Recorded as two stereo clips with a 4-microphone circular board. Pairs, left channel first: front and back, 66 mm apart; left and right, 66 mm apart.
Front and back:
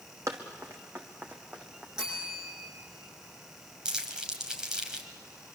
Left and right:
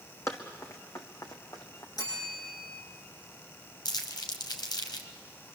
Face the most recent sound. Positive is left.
turn(degrees=100)